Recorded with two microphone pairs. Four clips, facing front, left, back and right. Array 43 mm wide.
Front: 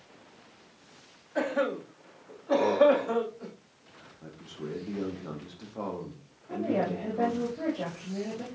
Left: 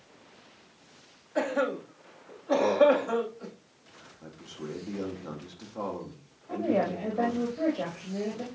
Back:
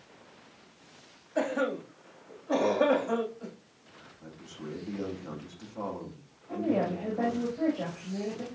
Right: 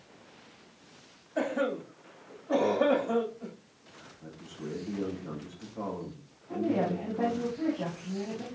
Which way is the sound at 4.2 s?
50° left.